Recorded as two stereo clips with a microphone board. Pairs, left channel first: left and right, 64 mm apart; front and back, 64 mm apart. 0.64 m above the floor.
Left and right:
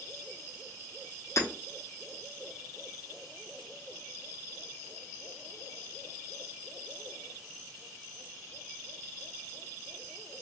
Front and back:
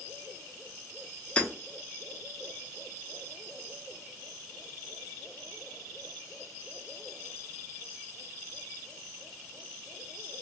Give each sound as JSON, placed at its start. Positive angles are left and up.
{"t": 1.4, "sound": "hammering", "azimuth_deg": 65, "distance_m": 0.7}